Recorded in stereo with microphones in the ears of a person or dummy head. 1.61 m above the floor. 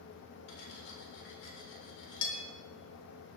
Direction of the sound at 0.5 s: 70° left (ahead or behind).